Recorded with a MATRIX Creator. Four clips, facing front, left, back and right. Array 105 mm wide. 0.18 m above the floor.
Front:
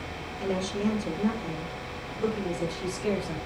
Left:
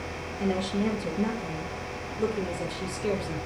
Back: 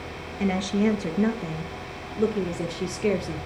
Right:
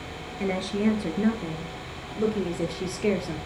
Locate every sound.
0.4 s a woman speaking: 150° right, 3 m; by 3.4 s 135° right, 4.5 m